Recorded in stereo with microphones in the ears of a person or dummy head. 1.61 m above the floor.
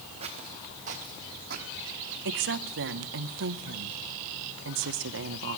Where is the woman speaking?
60° right (ahead or behind), 0.9 m.